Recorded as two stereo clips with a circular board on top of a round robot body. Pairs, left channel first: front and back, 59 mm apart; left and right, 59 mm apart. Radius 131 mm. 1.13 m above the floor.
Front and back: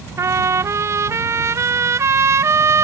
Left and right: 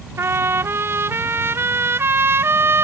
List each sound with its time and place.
0.2 s a trumpet: 140° right